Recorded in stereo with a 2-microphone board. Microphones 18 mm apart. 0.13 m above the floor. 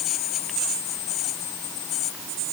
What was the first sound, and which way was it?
Only background noise.